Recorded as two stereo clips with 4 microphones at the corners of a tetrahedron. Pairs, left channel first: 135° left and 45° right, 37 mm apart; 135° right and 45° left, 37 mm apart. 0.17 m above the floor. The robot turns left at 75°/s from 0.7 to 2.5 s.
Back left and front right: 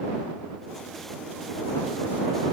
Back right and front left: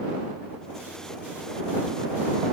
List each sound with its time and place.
Only background noise.